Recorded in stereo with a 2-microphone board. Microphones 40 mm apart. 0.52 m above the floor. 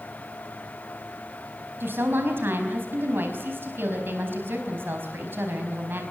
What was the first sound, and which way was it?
A woman speaking, 65° right (ahead or behind).